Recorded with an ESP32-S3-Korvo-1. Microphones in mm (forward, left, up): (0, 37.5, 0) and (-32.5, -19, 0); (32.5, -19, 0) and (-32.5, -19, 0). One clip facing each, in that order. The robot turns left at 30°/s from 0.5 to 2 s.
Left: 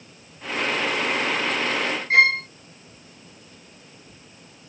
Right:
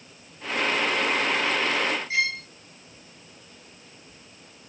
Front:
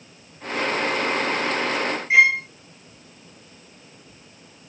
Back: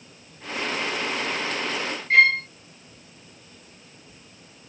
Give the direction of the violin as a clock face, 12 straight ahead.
9 o'clock.